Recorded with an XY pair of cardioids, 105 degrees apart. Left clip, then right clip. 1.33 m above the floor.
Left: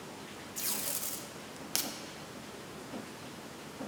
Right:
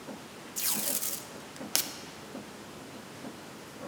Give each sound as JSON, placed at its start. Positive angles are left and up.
{"t": 0.6, "sound": "tape being pulled", "azimuth_deg": -30, "distance_m": 0.9}